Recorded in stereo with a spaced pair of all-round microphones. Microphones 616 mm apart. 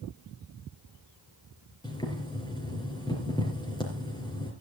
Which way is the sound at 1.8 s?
5° left (ahead or behind).